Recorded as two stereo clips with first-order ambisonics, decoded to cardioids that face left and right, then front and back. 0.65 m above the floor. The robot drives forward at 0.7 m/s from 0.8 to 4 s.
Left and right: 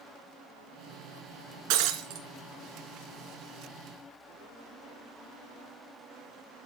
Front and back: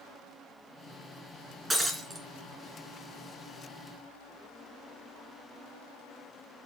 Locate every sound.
1.7 s breaking glass: 95° right, 2.5 m; by 2.2 s 105° right, 3 m